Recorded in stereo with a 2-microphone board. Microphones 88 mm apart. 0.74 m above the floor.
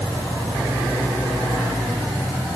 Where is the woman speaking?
No woman speaking in this recording.